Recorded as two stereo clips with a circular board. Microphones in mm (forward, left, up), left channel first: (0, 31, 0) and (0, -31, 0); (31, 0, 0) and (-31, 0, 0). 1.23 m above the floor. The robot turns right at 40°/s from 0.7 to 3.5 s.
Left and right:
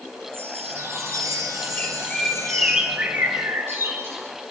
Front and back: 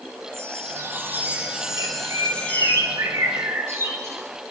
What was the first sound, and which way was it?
A chime, 135° right.